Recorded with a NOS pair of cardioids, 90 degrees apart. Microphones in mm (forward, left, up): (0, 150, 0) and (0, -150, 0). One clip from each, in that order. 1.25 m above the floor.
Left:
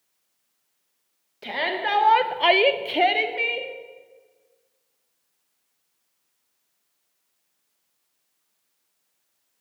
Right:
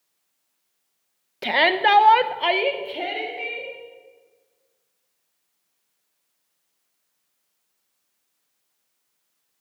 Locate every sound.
1.4 s a shout: 55° right, 1.1 m; by 3.7 s 60° left, 1.6 m